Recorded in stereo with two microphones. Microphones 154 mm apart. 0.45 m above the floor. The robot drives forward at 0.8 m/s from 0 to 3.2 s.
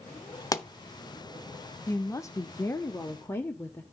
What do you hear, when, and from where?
0.5 s a pop: 20° left (ahead or behind), 0.8 m; by 0.7 s 25° left (ahead or behind), 0.7 m
1.9 s a woman speaking: 20° left (ahead or behind), 0.9 m; by 3.8 s 15° left (ahead or behind), 1.1 m